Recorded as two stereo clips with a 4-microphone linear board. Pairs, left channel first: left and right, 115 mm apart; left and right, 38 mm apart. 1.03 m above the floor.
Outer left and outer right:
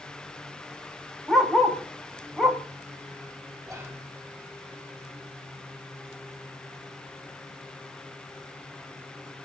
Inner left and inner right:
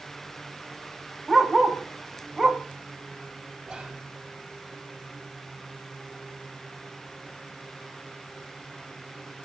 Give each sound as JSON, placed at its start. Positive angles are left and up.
{"t": 1.3, "sound": "a dog barking", "side_deg": 0, "distance_m": 2.5}
{"t": 3.6, "sound": "whispering", "side_deg": -5, "distance_m": 4.5}